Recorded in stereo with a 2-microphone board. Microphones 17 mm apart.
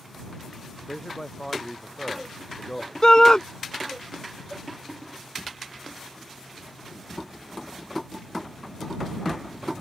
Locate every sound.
0.9 s a man speaking: 30° left (ahead or behind)
3.0 s a shout: 40° left (ahead or behind)